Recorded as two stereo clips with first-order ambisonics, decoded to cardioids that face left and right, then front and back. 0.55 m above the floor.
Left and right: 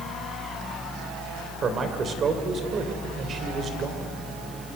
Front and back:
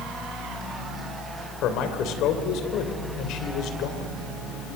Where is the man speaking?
30° right, 2.5 m.